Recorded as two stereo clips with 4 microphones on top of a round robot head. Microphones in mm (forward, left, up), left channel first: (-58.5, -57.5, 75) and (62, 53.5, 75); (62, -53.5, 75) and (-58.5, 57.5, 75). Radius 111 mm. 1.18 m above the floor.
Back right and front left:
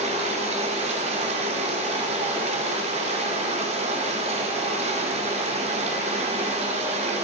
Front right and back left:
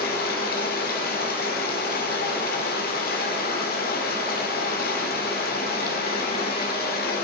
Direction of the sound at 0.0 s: 10° right.